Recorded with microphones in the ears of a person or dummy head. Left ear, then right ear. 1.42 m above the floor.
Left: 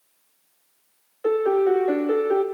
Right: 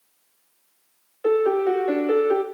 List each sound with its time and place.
1.2 s a piano: 5° right (ahead or behind), 0.5 m